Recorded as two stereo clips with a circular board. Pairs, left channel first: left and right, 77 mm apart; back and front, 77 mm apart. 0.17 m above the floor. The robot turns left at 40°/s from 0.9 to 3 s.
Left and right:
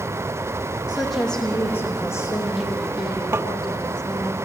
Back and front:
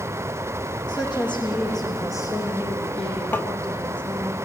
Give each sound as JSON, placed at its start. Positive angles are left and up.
{"t": 0.9, "sound": "a woman speaking", "azimuth_deg": -170, "distance_m": 6.5}
{"t": 3.3, "sound": "tapping", "azimuth_deg": -130, "distance_m": 0.5}